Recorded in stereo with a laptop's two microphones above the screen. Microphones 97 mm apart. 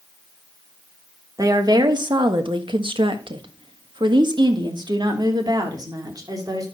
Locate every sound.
1.4 s a woman speaking: 35° right (ahead or behind), 1.4 m; by 6.7 s 40° right (ahead or behind), 3 m